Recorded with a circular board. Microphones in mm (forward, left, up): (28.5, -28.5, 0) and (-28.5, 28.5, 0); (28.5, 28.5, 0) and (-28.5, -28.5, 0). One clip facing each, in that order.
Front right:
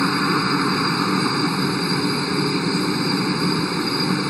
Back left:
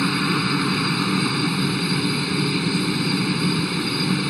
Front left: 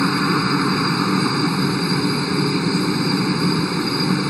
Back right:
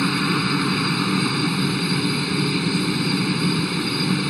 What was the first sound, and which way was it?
A helicopter, straight ahead.